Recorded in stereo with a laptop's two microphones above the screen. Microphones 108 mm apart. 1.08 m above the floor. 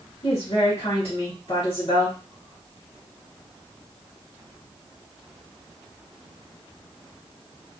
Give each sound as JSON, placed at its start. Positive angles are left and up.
{"t": 0.2, "sound": "a woman speaking", "side_deg": 60, "distance_m": 1.3}